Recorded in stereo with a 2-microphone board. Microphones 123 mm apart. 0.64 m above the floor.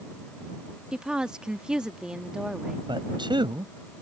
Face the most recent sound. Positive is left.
turn(degrees=-40)  # may be behind; listen again after turning